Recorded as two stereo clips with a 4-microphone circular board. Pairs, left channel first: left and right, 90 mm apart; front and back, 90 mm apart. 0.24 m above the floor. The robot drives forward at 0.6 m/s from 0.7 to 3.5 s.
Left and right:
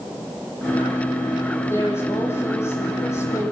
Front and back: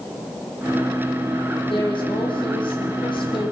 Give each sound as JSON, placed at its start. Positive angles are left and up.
{"t": 1.6, "sound": "a woman speaking", "azimuth_deg": 25, "distance_m": 10.0}